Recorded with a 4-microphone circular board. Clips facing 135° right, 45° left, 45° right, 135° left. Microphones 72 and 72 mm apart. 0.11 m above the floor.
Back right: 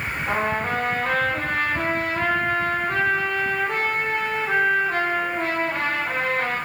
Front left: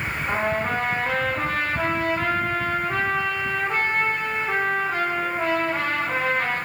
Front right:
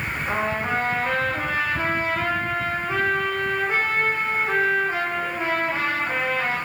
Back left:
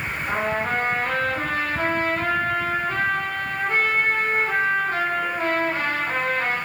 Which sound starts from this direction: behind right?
A trumpet, at 0.3 s.